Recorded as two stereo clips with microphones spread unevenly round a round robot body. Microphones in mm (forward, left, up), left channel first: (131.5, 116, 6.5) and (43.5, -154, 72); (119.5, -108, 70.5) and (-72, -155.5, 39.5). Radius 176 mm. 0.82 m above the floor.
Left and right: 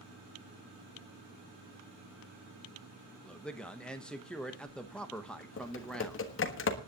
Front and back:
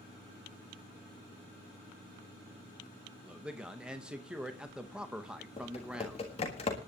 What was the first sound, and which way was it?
A man speaking, 130° left.